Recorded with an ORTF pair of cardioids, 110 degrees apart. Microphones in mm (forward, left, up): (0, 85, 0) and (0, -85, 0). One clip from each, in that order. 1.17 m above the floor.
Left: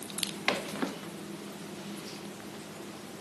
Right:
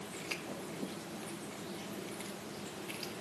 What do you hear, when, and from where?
Only background noise.